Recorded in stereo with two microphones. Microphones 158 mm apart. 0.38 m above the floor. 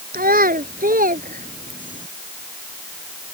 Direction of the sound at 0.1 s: 70° right (ahead or behind).